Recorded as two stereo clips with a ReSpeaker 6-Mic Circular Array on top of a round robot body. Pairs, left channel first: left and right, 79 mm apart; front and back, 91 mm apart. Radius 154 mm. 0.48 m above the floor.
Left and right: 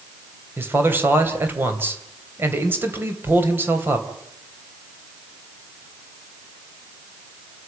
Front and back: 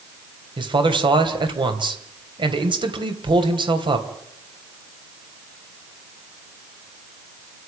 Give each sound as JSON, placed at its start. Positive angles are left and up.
{"t": 0.6, "sound": "a man speaking", "azimuth_deg": -155, "distance_m": 3.0}